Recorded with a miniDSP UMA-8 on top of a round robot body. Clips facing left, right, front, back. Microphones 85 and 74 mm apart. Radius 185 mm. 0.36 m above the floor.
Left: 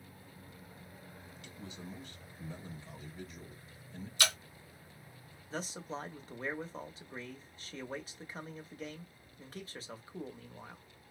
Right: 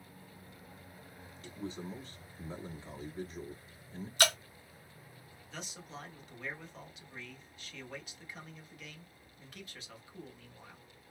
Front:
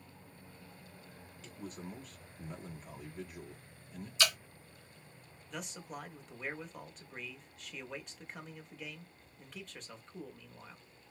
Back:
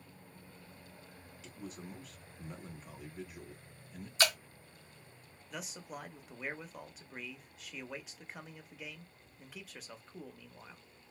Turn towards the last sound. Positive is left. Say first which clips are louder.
# left 7 dB, front 1 dB
turn(degrees=100)